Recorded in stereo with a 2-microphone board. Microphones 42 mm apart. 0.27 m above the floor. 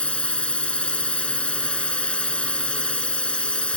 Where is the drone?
30° left (ahead or behind).